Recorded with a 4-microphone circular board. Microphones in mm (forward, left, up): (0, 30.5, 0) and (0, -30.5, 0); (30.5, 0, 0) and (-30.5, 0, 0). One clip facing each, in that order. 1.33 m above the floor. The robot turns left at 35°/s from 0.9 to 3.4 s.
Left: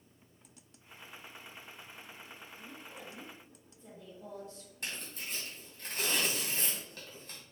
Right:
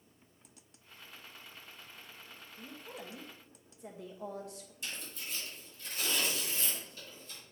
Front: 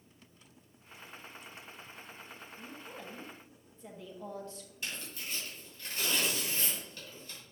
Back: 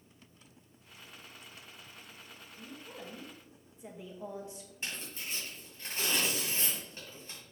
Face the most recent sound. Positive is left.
turn(degrees=120)